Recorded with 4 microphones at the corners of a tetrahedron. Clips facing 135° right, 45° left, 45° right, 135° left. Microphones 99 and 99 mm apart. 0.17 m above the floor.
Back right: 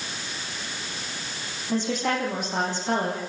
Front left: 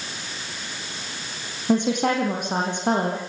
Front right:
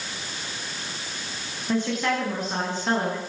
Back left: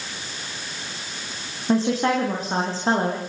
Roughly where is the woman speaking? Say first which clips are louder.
Front left 5 dB, back left 5 dB; left.